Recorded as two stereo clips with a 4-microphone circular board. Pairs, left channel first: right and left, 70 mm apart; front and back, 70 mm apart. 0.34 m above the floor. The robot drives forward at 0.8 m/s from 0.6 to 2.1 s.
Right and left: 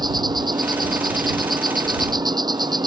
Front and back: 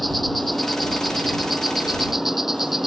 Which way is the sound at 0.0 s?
90° left.